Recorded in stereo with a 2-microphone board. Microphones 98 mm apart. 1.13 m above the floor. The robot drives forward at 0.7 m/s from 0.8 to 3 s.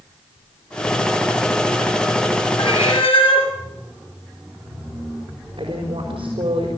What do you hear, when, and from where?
2.6 s a cat meowing: 80° left, 5 m
5.6 s a woman speaking: 80° right, 5 m